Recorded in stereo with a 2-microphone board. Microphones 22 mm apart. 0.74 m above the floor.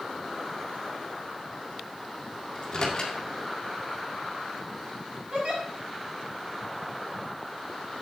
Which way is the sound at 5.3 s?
60° right (ahead or behind).